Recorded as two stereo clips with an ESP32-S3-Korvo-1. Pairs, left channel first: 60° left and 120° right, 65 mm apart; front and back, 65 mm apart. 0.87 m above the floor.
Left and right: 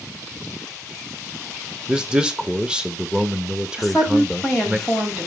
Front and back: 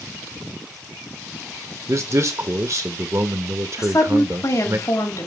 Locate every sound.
1.9 s a man speaking: 165° left, 1.1 m
3.8 s a woman speaking: 35° right, 5 m